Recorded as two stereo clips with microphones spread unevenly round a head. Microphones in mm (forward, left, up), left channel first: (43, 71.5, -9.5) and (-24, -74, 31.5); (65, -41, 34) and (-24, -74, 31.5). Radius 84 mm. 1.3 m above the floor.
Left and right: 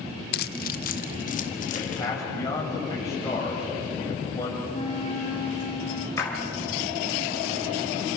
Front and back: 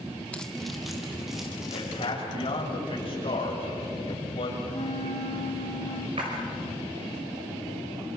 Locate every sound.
0.3 s keys jangling: 100° left, 0.5 m; by 2.1 s 115° left, 2.5 m
1.7 s a man speaking: 5° right, 8.5 m
4.7 s a flute: straight ahead, 2.5 m
6.2 s a splash: 140° left, 4.5 m